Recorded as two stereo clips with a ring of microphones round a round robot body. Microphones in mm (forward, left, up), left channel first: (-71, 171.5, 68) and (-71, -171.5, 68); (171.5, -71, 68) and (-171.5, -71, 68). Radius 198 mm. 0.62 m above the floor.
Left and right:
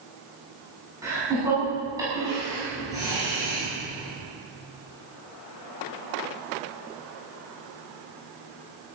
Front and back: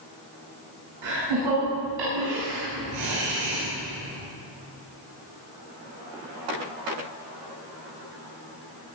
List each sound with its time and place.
1.0 s laughter: 170° right, 7 m